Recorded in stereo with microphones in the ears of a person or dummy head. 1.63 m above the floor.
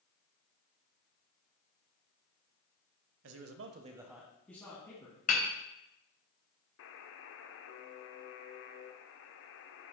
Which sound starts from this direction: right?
A man speaking, at 3.2 s.